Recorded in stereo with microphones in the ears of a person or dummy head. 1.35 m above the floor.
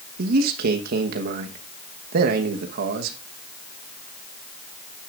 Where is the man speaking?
60° right (ahead or behind), 1.2 m.